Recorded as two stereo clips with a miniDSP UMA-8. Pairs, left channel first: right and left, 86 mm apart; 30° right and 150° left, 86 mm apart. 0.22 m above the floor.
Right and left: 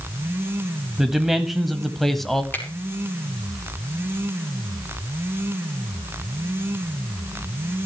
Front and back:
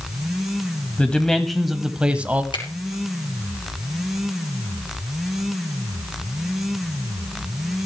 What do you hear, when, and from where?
1.0 s a man speaking: 15° left, 1.0 m; by 2.4 s 170° right, 1.1 m
2.5 s a finger snap: 25° right, 4.5 m